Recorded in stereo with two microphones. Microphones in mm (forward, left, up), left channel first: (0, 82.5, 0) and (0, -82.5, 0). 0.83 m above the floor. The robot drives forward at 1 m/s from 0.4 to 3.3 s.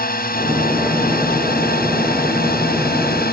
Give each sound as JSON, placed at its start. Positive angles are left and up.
{"t": 0.0, "sound": "a drone", "side_deg": 65}